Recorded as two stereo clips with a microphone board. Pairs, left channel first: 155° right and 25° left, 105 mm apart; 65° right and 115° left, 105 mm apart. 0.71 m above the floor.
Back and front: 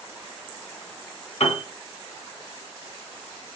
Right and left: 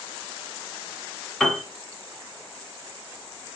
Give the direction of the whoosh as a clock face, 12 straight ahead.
I don't hear a whoosh.